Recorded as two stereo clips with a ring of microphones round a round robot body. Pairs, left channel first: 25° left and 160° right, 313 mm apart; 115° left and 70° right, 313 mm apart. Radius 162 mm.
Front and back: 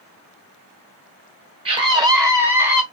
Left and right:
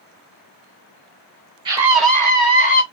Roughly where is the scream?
Behind right.